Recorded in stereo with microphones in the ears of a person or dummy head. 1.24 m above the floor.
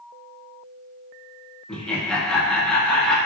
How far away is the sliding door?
I don't hear a sliding door.